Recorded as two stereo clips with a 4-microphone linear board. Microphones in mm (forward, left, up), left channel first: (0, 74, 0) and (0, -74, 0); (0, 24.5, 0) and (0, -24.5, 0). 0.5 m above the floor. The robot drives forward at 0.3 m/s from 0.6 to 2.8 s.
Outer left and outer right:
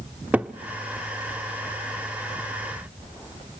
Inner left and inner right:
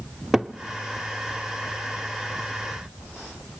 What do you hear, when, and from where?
0.3 s a cupboard door: 10° right (ahead or behind), 0.6 m